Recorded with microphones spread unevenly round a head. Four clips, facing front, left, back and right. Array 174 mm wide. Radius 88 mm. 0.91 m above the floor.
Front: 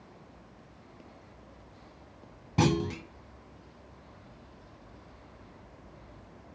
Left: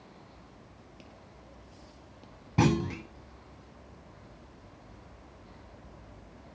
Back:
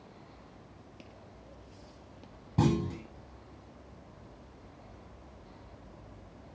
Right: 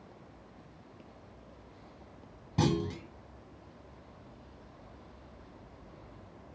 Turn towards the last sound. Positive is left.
turn(degrees=45)